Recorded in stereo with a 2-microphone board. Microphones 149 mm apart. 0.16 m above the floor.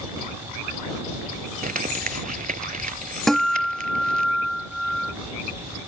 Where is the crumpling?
70° right (ahead or behind).